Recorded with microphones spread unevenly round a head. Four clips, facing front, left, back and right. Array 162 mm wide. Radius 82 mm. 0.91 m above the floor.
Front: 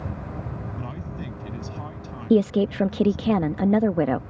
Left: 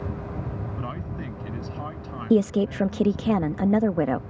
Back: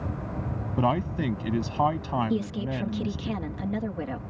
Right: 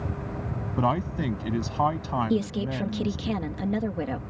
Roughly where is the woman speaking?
Ahead left.